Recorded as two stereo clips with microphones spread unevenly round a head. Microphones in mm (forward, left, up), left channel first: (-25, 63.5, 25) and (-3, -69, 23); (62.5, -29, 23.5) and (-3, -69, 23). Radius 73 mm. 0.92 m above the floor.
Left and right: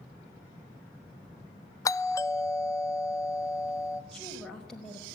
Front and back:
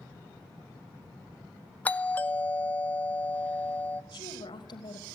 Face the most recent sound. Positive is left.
turn(degrees=15)